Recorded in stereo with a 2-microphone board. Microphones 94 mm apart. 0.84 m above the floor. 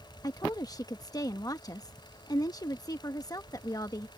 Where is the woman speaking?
40° left (ahead or behind).